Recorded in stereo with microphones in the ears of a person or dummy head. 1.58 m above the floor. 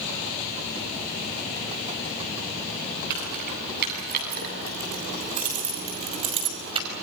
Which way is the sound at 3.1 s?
60° right (ahead or behind).